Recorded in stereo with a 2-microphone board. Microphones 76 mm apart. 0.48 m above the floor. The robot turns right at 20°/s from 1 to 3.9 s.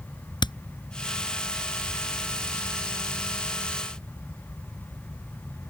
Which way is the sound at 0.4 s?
85° left.